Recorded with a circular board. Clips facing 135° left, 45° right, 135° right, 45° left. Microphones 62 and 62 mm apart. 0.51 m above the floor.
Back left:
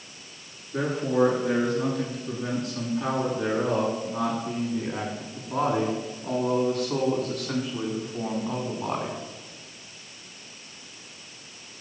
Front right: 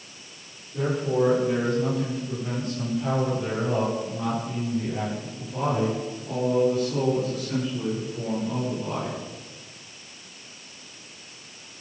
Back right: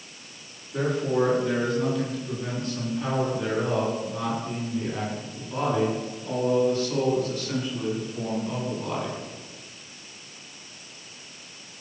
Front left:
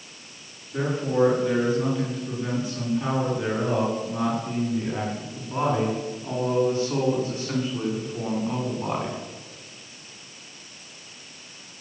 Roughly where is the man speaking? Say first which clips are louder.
Even, even; behind left.